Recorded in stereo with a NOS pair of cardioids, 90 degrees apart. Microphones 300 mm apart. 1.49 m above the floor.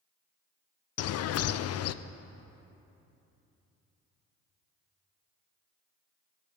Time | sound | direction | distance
1.0 | a bird | 65° left | 0.5 m